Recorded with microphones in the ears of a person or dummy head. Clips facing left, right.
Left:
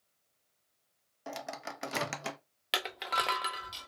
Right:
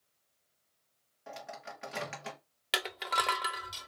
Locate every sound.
1.3 s a microwave: 55° left (ahead or behind), 0.8 m
2.7 s crushing: 5° left (ahead or behind), 0.8 m